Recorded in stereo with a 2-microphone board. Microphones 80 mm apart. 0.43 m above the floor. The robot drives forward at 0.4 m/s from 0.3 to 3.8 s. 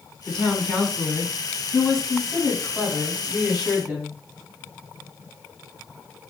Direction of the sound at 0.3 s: 5° left (ahead or behind).